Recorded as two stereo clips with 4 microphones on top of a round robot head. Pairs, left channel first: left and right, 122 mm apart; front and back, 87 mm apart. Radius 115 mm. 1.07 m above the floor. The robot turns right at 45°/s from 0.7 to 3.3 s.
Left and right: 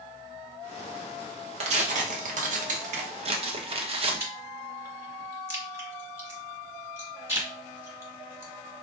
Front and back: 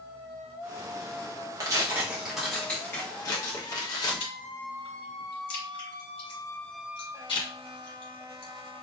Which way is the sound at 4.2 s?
20° right.